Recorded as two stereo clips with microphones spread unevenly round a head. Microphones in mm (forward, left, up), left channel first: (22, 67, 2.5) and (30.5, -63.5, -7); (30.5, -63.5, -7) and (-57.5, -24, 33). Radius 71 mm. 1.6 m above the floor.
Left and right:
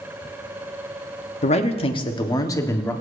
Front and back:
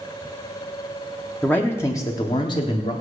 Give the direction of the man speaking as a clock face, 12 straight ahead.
10 o'clock.